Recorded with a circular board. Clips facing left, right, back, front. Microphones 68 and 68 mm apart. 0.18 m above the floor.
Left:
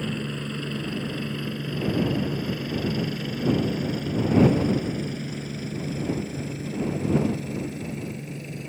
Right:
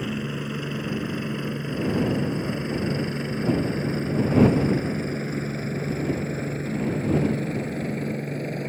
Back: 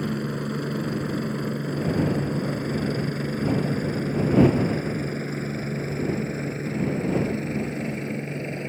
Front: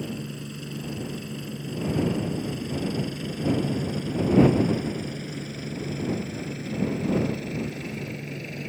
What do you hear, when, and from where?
0.0 s a helicopter: 165° right; by 8.7 s 120° right